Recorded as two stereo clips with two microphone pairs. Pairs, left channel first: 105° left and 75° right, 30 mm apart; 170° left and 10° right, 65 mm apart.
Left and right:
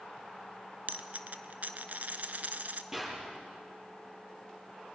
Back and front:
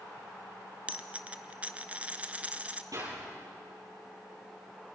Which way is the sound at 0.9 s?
80° right.